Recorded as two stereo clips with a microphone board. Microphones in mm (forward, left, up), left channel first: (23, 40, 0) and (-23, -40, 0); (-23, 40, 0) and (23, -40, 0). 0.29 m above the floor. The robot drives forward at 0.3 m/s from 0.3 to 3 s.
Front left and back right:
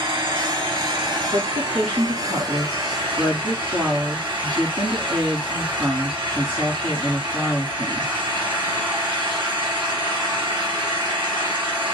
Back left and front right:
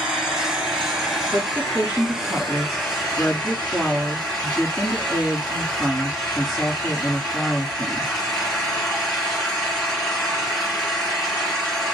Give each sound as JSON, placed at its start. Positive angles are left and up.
{"t": 0.0, "sound": "an engine running", "azimuth_deg": -140, "distance_m": 2.0}
{"t": 1.3, "sound": "a woman speaking", "azimuth_deg": -130, "distance_m": 3.5}